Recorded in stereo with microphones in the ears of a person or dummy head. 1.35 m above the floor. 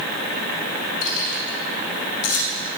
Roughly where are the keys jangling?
Left.